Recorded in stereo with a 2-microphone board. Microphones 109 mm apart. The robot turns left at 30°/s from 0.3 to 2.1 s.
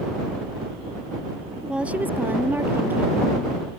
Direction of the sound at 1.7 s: 5° right (ahead or behind).